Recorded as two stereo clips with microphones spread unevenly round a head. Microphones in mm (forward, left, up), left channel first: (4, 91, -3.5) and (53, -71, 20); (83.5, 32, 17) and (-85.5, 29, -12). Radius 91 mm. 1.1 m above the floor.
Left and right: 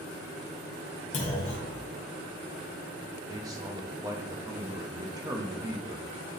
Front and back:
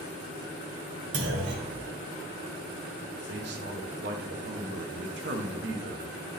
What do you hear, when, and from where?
1.1 s a clunk: 165° left, 1.8 m
3.3 s a man speaking: 145° right, 1.1 m